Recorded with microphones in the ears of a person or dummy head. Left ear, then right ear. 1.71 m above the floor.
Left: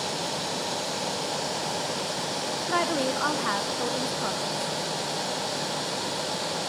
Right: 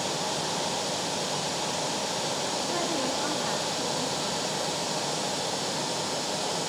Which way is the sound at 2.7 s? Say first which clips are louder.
Left 3 dB; 50° left (ahead or behind).